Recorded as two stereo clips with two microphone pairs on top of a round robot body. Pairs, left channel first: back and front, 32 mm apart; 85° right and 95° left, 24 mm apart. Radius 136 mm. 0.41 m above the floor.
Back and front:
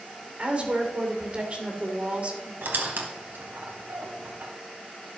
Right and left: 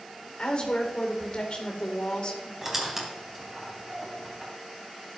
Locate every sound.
0.4 s a woman speaking: 45° right, 2 m
2.6 s a squeak: 20° left, 1.1 m